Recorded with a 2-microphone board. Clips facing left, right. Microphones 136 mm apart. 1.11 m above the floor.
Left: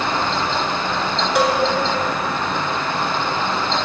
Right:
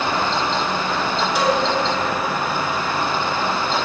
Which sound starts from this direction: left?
A cowbell, at 1.4 s.